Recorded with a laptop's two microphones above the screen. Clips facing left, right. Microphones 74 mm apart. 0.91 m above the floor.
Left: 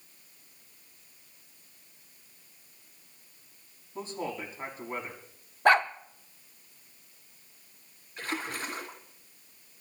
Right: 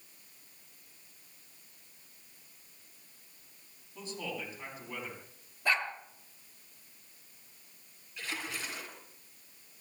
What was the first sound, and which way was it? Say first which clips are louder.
A man speaking: left 5 dB; 40° left (ahead or behind).